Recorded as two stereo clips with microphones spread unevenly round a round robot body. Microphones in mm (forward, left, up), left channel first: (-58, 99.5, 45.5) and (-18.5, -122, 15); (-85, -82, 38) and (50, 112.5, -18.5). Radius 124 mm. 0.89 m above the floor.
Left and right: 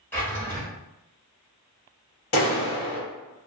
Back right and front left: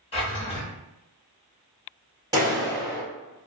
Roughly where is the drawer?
Behind.